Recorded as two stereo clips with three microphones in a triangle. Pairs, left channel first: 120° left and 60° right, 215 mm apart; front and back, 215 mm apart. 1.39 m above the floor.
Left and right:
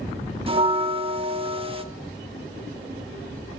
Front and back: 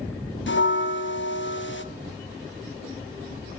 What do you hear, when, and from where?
0.5 s a bell: straight ahead, 1.1 m